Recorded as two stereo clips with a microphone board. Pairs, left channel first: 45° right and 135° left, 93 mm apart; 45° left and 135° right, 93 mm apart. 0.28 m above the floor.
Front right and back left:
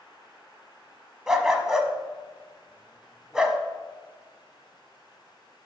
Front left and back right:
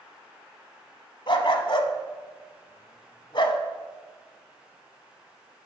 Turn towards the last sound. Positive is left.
turn(degrees=50)